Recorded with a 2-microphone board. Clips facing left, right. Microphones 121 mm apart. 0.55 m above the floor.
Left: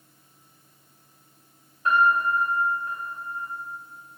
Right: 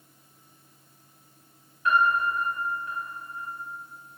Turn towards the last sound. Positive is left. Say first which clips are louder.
# left 2 dB
turn(degrees=40)  # may be behind; listen again after turning